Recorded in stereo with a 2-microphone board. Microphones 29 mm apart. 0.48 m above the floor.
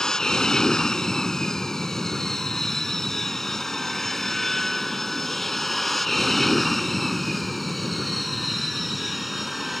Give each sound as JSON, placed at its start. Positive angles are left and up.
{"t": 0.0, "sound": "an aircraft", "side_deg": 25}